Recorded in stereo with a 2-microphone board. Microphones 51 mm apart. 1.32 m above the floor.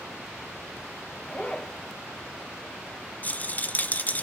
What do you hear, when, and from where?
1.2 s a zipper: 15° left (ahead or behind), 3.5 m
3.2 s a rattle: 30° left (ahead or behind), 0.7 m